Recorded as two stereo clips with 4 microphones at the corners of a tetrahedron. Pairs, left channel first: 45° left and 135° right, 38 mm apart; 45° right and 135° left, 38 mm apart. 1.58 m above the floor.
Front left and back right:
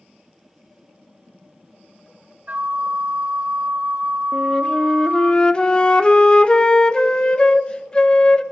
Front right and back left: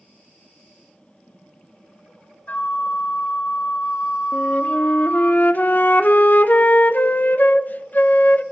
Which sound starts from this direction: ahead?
A flute, at 4.3 s.